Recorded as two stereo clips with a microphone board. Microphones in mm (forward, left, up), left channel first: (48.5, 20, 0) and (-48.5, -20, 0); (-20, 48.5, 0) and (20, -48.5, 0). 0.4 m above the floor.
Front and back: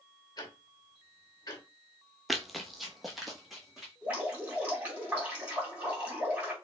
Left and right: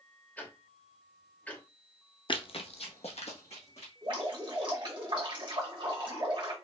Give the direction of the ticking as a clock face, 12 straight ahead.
11 o'clock.